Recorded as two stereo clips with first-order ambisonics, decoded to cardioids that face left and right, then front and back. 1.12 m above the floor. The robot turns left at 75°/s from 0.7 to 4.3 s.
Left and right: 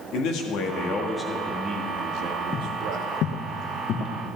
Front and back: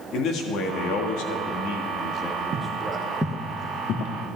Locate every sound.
0.1 s a man speaking: 50° left, 1.6 m; by 3.1 s 130° right, 1.6 m
2.5 s footsteps: 170° left, 1.2 m; by 4.2 s 30° left, 2 m